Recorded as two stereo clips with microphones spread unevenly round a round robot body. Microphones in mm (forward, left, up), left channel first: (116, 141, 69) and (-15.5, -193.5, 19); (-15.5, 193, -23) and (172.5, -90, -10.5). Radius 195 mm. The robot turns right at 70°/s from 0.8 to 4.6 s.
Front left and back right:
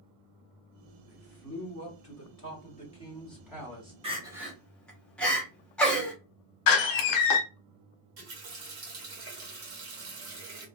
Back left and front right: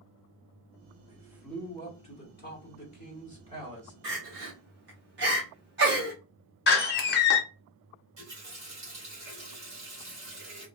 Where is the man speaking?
10° left, 1.1 m; by 3.9 s 150° right, 1.1 m.